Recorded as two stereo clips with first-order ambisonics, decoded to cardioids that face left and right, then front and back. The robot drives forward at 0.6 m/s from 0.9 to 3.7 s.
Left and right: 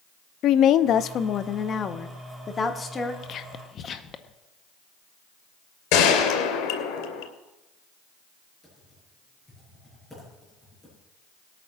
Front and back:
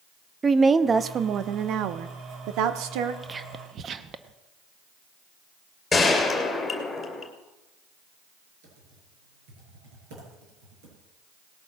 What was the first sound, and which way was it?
A woman speaking, 110° left.